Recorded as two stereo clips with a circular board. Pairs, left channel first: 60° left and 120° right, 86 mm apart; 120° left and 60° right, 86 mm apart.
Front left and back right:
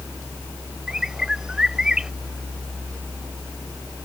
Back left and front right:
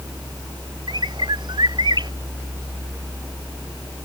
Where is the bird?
40° right.